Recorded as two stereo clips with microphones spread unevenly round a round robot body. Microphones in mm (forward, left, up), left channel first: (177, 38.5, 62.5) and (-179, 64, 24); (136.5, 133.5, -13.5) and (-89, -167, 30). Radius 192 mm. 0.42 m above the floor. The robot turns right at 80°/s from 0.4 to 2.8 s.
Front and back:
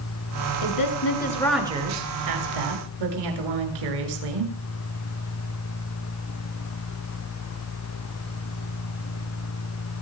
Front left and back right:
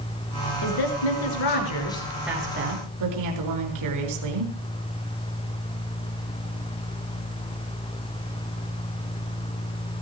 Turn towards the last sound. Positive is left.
turn(degrees=-175)